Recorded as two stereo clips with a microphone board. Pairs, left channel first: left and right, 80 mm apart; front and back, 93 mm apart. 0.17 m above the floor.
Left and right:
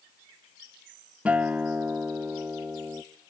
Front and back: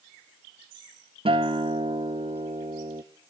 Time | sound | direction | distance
1.2 | a guitar | 165° right | 0.8 m